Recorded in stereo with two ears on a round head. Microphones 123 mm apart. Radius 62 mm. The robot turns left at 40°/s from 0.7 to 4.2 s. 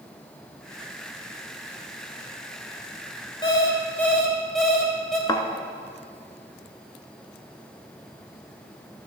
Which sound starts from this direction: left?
A thud, at 5.3 s.